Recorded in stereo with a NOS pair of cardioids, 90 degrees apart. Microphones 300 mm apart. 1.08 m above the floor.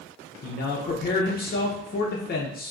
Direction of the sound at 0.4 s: 35° left.